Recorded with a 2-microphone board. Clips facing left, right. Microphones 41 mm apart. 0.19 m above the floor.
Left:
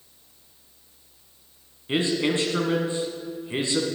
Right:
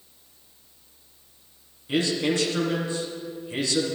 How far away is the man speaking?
About 1.8 m.